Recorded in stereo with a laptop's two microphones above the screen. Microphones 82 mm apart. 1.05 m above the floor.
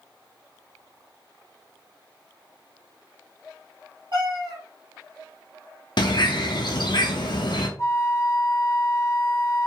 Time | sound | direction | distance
4.1 | a cat meowing | 70° right (ahead or behind) | 1.4 m
6.0 | a bird | 65° left (ahead or behind) | 0.5 m
7.8 | a flute | 40° left (ahead or behind) | 0.6 m